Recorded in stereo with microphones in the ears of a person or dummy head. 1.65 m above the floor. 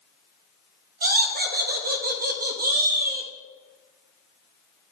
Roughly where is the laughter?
Right.